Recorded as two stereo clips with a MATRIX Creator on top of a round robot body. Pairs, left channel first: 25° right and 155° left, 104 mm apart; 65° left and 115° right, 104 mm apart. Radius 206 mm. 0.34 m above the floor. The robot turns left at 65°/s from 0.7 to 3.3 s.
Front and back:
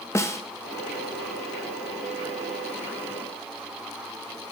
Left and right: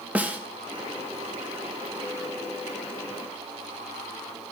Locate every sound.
0.1 s a snare drum: 50° right, 0.9 m